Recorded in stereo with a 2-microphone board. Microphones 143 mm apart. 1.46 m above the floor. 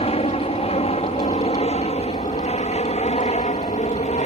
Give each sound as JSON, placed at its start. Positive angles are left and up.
{"t": 0.0, "sound": "an aircraft", "side_deg": 45}